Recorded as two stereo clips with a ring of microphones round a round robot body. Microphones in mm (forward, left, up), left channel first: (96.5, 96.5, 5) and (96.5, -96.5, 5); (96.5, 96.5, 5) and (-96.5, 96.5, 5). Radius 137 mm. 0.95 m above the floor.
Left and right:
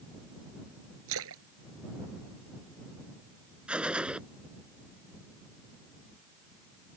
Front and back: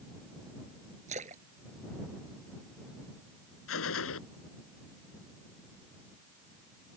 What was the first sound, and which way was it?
A splash, 115° right.